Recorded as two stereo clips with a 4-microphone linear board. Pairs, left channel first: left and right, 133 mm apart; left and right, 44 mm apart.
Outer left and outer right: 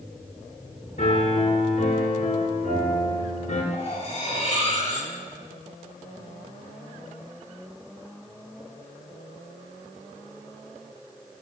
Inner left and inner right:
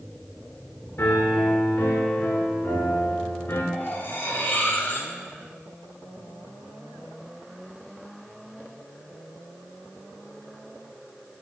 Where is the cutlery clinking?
45° left (ahead or behind), 1.0 m.